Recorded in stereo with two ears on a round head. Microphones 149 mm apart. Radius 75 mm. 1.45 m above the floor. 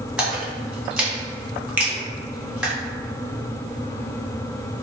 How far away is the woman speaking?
No woman speaking in this recording.